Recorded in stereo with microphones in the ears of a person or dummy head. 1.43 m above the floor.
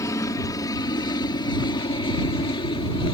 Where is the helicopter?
15° left (ahead or behind); by 3.1 s 25° left (ahead or behind).